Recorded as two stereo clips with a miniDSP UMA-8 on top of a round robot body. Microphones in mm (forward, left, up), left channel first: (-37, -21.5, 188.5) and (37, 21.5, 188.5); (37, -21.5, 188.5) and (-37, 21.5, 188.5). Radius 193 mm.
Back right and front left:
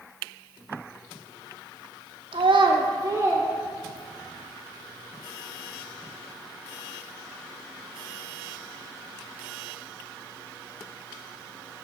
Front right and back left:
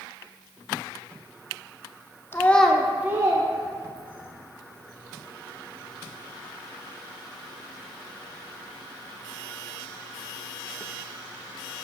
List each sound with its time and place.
2.3 s a child speaking: 35° left, 0.9 m; by 4.3 s 120° left, 1.8 m